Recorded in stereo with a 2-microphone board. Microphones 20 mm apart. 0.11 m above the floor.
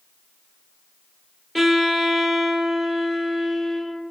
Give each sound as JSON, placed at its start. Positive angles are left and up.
{"t": 1.6, "sound": "a violin", "side_deg": 10, "distance_m": 1.3}